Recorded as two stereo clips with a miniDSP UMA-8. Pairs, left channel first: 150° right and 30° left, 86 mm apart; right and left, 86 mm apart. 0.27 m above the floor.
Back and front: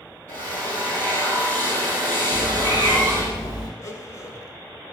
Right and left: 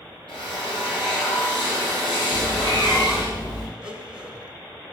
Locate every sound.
0.3 s a drill: 90° right, 3.5 m
2.3 s a cat meowing: 115° right, 3 m
3.8 s a blender: 165° left, 0.9 m